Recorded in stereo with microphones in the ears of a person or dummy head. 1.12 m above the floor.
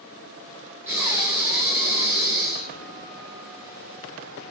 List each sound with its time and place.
0.9 s breathing: 10° right (ahead or behind), 3.5 m